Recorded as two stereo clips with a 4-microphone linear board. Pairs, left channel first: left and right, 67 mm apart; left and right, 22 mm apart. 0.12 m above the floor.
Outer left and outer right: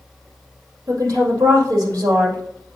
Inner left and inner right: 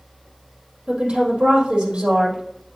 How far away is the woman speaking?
About 4 m.